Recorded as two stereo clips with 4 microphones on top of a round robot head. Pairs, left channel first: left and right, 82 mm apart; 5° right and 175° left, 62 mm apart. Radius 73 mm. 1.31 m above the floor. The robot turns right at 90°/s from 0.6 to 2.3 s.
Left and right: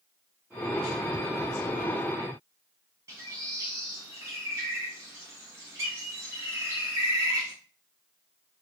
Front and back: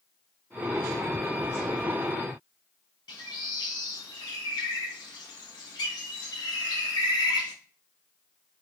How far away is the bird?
About 0.6 m.